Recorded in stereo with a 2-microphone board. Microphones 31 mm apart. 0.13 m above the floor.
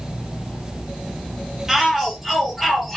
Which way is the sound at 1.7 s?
10° right (ahead or behind).